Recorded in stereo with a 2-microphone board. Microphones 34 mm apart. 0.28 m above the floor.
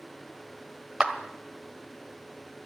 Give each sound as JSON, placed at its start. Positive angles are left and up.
{"t": 1.0, "sound": "a clap", "side_deg": -20, "distance_m": 1.1}